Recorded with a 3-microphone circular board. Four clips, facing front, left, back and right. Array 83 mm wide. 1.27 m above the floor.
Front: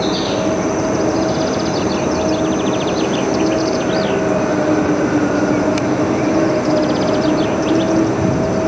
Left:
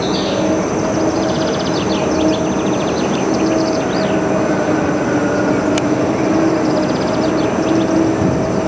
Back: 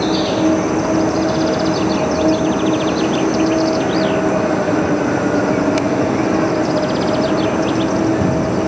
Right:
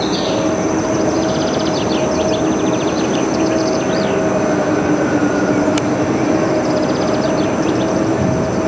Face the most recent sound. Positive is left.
turn(degrees=-170)